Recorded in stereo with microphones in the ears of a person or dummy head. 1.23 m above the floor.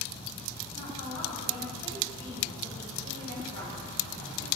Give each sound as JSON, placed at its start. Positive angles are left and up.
{"t": 0.7, "sound": "a woman speaking", "side_deg": -75, "distance_m": 5.0}